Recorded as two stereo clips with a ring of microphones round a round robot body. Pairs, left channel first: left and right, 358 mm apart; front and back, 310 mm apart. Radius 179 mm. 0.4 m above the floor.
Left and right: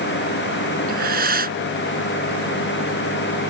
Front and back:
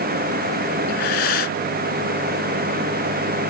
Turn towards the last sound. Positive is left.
turn(degrees=-25)